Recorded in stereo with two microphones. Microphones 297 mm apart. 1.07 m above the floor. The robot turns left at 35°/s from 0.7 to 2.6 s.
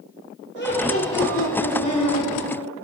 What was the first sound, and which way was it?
Laughter, 145° left.